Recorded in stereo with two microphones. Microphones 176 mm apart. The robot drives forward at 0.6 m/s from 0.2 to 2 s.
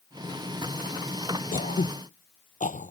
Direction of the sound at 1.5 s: 50° left (ahead or behind).